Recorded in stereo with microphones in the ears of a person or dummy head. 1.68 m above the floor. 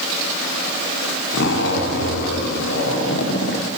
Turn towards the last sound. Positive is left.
turn(degrees=70)  # may be behind; listen again after turning